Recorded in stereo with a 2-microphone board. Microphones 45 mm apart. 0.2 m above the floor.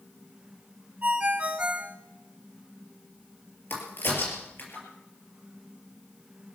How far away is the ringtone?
About 1.7 m.